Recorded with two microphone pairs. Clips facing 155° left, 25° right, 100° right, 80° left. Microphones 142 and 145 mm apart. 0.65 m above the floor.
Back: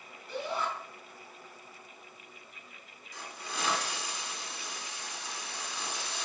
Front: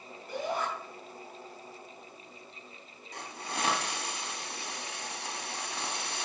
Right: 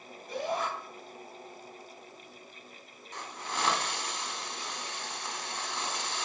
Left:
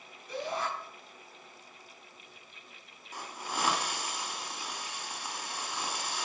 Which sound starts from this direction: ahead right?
A shout, at 0.3 s.